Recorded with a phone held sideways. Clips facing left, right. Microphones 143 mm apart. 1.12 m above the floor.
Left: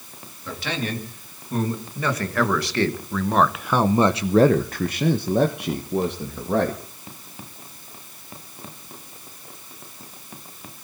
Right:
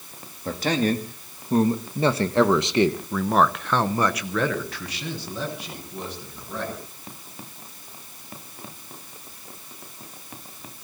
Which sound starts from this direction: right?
A man speaking, at 0.5 s.